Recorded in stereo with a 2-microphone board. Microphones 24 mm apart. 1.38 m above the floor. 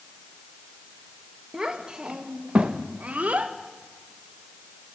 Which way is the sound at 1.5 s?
30° right (ahead or behind).